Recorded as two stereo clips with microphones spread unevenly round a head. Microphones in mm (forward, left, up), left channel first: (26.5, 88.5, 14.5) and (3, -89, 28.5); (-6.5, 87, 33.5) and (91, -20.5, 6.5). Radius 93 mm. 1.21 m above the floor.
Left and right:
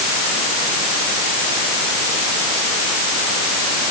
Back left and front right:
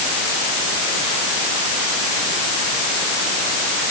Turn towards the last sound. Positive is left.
No sound to turn to.